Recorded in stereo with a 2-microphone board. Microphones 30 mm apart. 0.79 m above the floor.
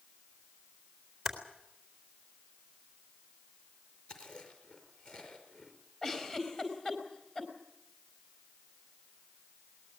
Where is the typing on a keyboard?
5° right (ahead or behind), 4 m.